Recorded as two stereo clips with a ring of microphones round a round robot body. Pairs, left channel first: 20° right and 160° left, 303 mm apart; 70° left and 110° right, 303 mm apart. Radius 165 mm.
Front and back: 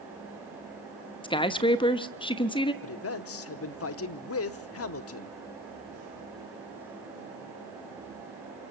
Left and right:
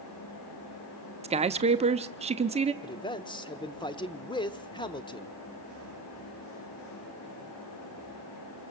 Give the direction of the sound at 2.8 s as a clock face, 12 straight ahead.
12 o'clock.